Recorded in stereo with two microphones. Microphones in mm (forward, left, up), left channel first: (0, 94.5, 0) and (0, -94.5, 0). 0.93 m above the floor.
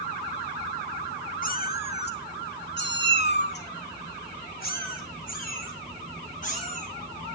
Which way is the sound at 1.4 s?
50° left (ahead or behind).